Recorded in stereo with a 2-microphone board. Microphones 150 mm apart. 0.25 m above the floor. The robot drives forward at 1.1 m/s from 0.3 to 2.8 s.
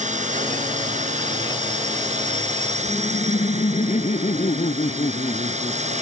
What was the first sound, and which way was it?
A drone, 50° right (ahead or behind).